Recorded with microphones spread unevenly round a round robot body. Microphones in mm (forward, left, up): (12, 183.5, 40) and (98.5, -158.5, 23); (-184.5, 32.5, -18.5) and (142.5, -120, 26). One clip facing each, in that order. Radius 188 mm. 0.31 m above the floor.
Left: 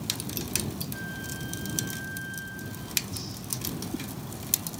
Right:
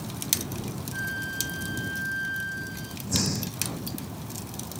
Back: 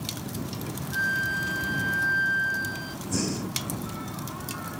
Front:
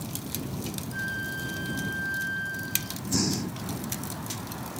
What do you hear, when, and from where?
0.9 s a flute: 145° right
3.1 s breathing: 100° right